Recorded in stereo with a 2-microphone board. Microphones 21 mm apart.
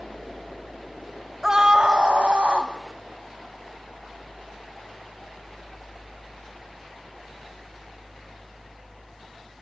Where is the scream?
25° right (ahead or behind), 1.0 m; by 2.7 s 60° right (ahead or behind), 1.8 m.